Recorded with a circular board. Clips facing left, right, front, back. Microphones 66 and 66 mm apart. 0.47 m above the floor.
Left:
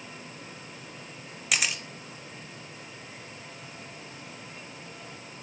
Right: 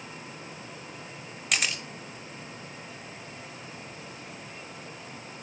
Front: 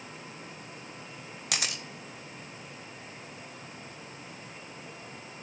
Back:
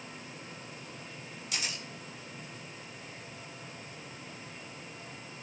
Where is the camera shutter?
5° left, 0.8 m.